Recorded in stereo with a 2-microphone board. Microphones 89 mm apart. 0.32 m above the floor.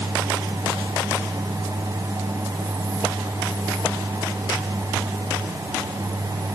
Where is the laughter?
No laughter in this recording.